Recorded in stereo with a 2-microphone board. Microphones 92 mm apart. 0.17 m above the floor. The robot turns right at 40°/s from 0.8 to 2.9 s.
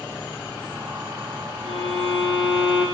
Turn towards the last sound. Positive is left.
turn(degrees=110)